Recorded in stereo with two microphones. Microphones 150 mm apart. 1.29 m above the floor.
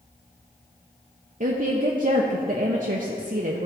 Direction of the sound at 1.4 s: 55° right (ahead or behind).